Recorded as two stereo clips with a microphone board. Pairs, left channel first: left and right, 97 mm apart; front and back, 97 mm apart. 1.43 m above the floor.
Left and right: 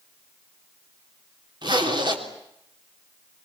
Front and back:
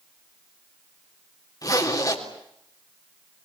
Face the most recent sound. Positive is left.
turn(degrees=-50)